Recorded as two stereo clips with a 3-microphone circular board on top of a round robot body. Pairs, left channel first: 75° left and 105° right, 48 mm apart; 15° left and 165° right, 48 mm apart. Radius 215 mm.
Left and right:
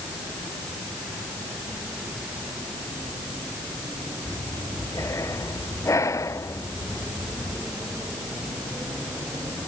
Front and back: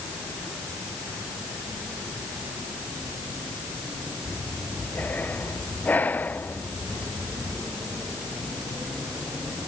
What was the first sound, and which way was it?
Breathing, 70° left.